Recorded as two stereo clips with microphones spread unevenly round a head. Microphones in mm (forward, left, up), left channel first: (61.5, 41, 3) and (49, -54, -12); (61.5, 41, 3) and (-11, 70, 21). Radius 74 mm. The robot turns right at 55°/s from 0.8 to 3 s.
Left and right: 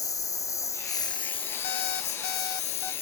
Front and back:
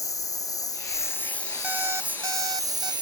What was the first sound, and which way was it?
A lawn mower, 30° left.